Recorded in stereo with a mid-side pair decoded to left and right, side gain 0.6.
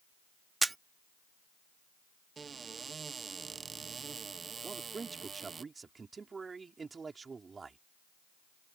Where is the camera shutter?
15° right.